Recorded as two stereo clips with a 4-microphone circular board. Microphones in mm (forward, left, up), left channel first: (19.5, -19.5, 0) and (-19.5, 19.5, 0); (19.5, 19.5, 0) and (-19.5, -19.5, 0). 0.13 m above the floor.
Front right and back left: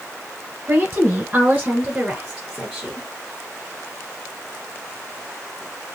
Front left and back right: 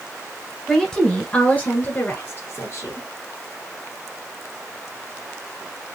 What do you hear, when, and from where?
0.7 s a woman speaking: 125° left, 1.4 m; by 3.1 s 40° left, 2.0 m